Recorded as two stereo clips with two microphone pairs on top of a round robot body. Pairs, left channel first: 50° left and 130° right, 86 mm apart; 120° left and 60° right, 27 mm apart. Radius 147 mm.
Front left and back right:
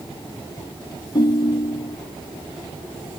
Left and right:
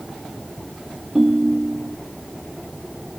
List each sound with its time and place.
1.1 s a ringtone: 5° left